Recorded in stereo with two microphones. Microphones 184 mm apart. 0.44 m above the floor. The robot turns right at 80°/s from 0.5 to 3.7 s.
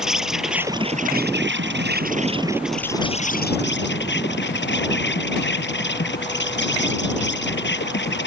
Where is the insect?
Straight behind; by 8.3 s 80° left.